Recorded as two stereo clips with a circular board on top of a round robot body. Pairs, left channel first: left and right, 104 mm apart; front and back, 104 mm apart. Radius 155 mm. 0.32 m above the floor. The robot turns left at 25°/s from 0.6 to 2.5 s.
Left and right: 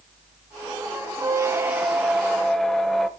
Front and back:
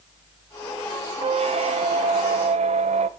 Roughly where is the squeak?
Behind right.